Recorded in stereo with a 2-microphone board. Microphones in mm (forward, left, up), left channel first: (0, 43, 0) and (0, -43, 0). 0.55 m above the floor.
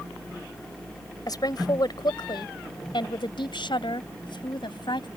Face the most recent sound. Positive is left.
turn(degrees=65)  # may be behind; listen again after turning